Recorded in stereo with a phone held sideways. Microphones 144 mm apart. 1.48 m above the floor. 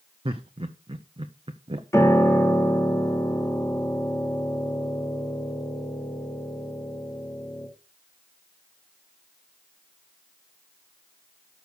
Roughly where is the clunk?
I don't hear a clunk.